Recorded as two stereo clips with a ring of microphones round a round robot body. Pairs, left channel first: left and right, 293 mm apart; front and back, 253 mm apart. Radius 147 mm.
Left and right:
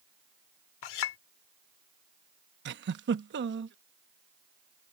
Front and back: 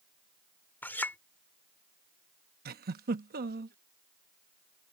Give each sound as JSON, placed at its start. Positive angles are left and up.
{"t": 0.8, "sound": "a clink", "azimuth_deg": 85}
{"t": 2.6, "sound": "a giggle", "azimuth_deg": -135}